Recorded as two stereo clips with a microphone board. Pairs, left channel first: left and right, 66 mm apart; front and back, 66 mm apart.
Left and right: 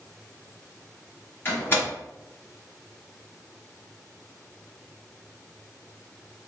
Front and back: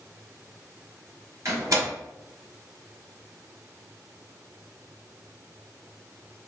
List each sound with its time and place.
1.4 s a door slam: 150° left, 1.4 m